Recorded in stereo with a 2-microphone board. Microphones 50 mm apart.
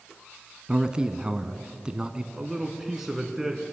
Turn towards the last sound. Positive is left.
turn(degrees=-5)  # may be behind; listen again after turning